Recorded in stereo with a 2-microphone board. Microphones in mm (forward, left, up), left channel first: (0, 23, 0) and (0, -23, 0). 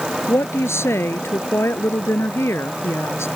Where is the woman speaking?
60° left (ahead or behind).